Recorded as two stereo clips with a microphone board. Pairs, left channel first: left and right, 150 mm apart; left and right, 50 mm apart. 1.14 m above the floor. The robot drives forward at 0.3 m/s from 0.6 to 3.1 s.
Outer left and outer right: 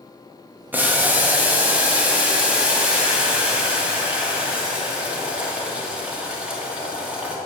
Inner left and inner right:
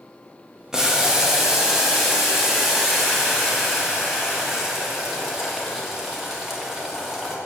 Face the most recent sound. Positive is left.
turn(degrees=-10)  # may be behind; listen again after turning